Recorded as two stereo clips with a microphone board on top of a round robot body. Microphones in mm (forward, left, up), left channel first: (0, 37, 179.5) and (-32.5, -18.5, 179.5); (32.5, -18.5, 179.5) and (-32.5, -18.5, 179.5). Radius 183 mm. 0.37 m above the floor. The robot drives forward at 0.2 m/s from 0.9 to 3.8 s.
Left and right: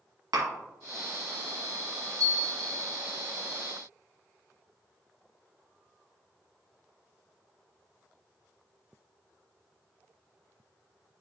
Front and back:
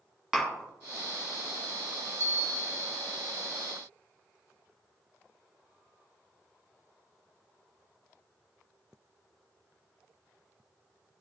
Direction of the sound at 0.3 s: 100° right.